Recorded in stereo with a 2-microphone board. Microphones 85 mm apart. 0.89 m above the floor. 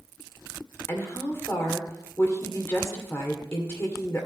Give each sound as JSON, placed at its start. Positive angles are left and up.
{"t": 0.9, "sound": "a woman speaking", "side_deg": 30, "distance_m": 2.0}